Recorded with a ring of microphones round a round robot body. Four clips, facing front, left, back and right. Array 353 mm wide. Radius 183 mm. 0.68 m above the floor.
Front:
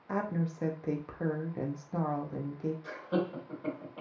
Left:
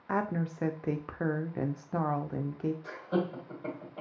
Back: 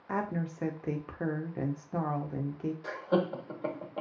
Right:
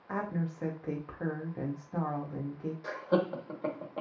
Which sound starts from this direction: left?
A woman speaking, at 0.1 s.